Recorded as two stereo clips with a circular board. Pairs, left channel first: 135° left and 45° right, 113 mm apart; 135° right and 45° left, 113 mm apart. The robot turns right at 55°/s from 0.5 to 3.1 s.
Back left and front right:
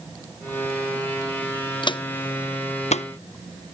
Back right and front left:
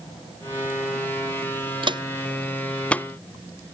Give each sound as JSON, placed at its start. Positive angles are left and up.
{"t": 1.8, "sound": "footsteps", "azimuth_deg": 85}